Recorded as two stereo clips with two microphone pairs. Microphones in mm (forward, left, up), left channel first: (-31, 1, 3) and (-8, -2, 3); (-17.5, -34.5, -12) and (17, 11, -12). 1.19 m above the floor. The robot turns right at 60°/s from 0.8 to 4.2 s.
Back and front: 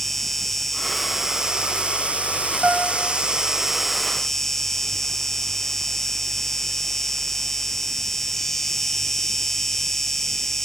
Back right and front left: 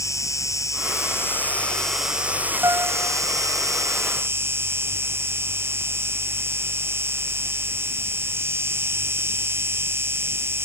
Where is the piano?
25° left; by 3.2 s 55° left.